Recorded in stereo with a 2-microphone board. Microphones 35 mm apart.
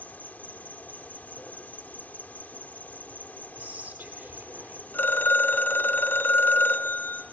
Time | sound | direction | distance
0.0 | an insect | 55° left (ahead or behind) | 1.5 m
3.6 | whispering | 70° right (ahead or behind) | 8.5 m
4.9 | a phone ringing | 80° left | 3 m